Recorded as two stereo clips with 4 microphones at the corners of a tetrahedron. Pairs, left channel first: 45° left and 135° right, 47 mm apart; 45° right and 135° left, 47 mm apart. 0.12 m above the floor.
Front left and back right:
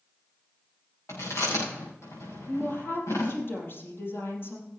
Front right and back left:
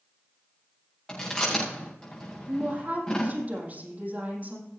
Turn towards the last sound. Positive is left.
turn(degrees=80)